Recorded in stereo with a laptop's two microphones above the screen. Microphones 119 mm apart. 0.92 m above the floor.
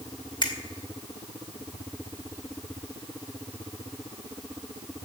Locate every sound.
0.4 s a finger snap: 40° left (ahead or behind), 2 m